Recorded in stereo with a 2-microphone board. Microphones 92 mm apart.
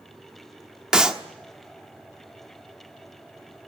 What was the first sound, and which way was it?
A clap, 10° right (ahead or behind).